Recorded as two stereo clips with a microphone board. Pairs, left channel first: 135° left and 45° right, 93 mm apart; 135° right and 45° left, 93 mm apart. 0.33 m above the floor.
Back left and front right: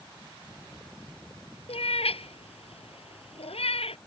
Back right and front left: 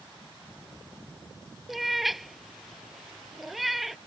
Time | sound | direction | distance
1.7 | a cat meowing | 135° left | ?